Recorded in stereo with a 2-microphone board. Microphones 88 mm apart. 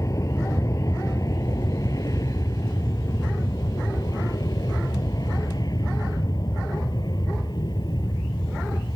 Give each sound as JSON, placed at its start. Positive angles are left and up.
{"t": 0.0, "sound": "an aircraft", "side_deg": 40}